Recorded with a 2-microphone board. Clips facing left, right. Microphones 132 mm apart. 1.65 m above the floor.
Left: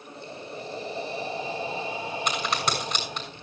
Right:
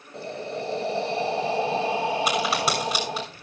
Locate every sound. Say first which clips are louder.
0.1 s breathing: right 8 dB; 75° right (ahead or behind), 2 m
2.3 s a crack: right 4 dB; 5° right (ahead or behind), 6.5 m